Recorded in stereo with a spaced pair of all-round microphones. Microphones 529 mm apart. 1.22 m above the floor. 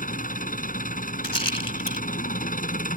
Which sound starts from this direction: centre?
An engine running, at 0.0 s.